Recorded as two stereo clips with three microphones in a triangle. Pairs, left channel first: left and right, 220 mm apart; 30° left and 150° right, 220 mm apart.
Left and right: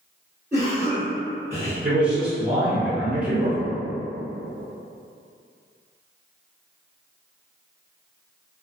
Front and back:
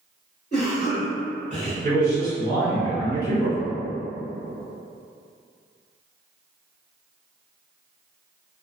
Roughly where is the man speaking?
Ahead.